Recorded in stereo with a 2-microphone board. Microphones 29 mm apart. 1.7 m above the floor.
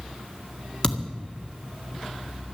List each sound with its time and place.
0.8 s a thud: 25° left (ahead or behind), 1.9 m